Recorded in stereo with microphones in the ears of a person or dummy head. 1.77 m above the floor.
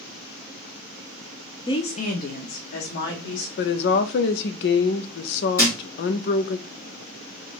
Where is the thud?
15° left (ahead or behind), 2 m.